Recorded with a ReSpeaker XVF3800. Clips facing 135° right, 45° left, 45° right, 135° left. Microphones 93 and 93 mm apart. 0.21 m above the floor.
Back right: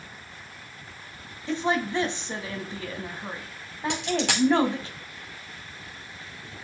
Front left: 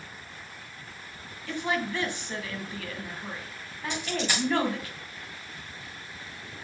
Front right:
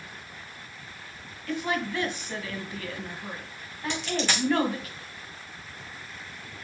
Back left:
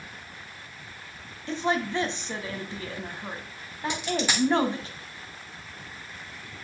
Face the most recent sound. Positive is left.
turn(degrees=-145)